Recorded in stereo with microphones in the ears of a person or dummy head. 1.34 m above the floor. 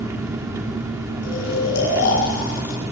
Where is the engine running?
15° right (ahead or behind), 3.5 m.